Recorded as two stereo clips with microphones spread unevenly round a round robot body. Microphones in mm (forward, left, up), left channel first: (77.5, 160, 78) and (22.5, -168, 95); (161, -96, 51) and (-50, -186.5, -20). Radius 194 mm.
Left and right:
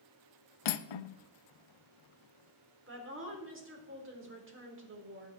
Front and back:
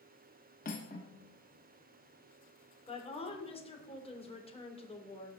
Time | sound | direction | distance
0.7 | cutlery clinking | 90° left | 0.7 m
2.9 | a woman speaking | 45° right | 4 m